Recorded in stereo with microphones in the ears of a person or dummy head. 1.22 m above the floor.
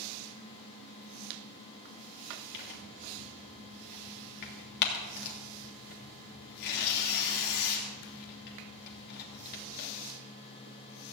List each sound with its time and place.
2.5 s tearing paper: 45° left (ahead or behind), 3 m